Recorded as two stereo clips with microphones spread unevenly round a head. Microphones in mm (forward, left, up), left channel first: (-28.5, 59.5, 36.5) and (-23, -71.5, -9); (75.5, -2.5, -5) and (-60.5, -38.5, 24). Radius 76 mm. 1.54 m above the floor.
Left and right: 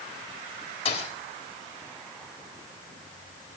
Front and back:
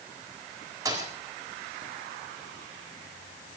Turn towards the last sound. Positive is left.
turn(degrees=130)